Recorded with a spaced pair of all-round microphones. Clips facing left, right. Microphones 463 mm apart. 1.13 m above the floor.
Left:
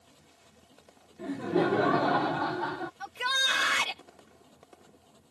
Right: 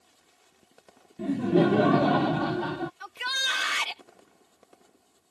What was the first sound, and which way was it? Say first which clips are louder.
A machine running: left 5 dB; 80° left.